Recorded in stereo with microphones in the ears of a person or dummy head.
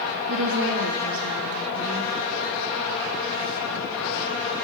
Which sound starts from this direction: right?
A woman speaking, at 0.3 s.